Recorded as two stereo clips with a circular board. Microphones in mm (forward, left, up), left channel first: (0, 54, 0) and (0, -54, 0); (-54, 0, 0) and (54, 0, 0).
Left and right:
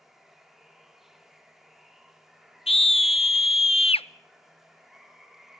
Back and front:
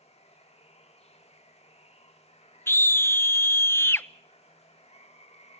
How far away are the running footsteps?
No running footsteps in this recording.